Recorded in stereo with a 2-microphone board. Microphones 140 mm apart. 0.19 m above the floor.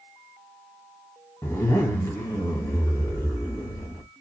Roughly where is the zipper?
Left.